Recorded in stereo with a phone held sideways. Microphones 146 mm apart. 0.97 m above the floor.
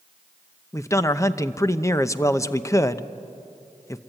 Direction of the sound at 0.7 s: 20° left (ahead or behind).